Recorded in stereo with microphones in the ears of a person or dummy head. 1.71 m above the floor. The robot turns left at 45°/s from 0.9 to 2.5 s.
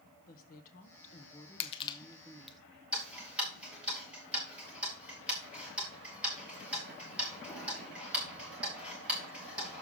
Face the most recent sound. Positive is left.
turn(degrees=-10)  # may be behind; listen again after turning